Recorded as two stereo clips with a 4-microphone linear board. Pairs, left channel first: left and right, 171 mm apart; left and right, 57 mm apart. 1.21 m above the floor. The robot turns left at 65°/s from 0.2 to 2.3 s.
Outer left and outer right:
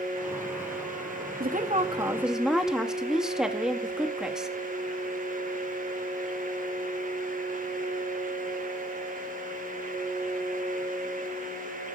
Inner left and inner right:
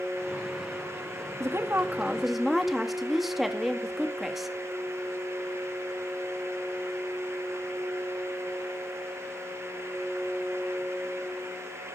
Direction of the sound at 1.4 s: 120° right.